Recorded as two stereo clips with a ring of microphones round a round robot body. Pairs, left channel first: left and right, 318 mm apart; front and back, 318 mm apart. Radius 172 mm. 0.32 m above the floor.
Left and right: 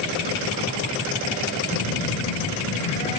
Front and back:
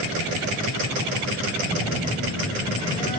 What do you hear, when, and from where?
1.7 s a phone buzzing: 50° left, 1.3 m